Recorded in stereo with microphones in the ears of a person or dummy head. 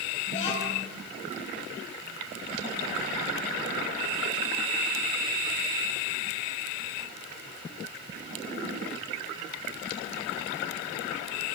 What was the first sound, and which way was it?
A child speaking, 35° left (ahead or behind).